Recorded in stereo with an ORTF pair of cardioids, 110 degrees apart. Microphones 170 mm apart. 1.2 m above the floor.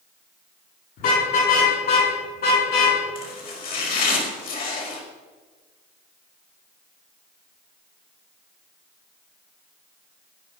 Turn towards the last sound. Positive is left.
turn(degrees=60)